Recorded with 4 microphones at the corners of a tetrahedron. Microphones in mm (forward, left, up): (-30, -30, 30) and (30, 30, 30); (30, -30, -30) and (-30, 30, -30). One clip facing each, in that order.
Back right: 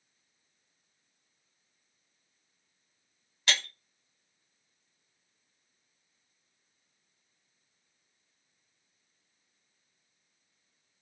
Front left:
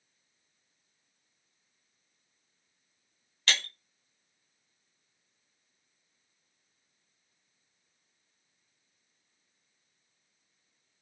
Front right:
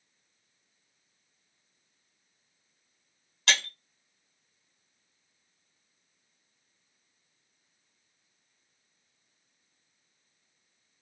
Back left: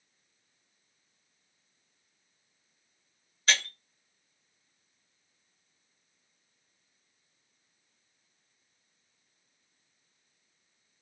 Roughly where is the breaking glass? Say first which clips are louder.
Even, even; ahead right.